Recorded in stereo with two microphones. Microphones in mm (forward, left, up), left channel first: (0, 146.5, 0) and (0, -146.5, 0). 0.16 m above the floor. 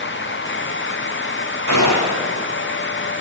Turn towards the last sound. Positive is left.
turn(degrees=80)